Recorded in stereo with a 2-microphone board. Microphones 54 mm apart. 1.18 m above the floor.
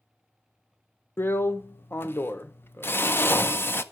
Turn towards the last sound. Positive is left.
turn(degrees=40)  # may be behind; listen again after turning